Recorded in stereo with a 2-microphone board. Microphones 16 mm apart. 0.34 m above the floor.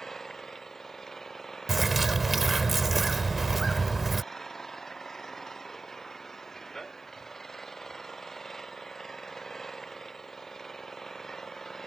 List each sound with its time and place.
0.0 s an engine running: 30° left (ahead or behind)
1.7 s a bird: 15° right (ahead or behind)